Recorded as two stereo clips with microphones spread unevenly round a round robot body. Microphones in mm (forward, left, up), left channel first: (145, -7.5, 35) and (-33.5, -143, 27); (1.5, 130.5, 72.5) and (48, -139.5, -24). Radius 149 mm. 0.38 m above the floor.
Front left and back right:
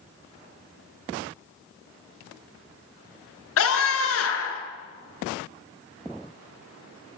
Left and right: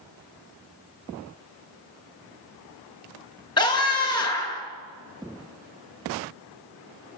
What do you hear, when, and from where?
3.6 s a scream: 20° left, 6.5 m